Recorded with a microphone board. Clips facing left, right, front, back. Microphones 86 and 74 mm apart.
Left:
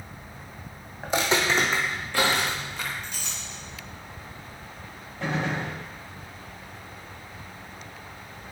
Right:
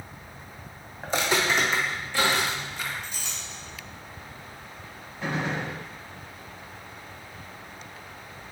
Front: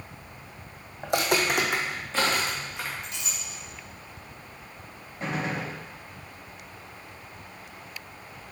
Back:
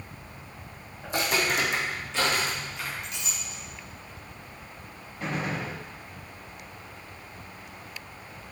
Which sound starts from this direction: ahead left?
A clink, at 3.0 s.